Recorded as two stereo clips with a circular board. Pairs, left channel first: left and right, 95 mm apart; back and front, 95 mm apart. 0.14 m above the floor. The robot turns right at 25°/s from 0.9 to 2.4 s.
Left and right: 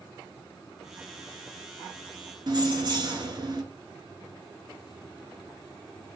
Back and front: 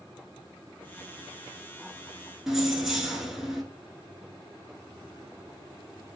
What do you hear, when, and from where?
2.5 s keys jangling: 85° right, 1.1 m